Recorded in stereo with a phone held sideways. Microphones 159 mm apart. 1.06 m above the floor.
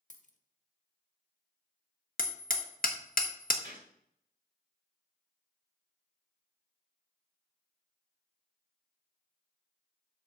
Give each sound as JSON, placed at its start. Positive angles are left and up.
{"t": 0.1, "sound": "a dropped coin", "side_deg": 50, "distance_m": 1.0}
{"t": 2.2, "sound": "hammering", "side_deg": 60, "distance_m": 1.1}
{"t": 3.6, "sound": "a gunshot", "side_deg": -50, "distance_m": 4.0}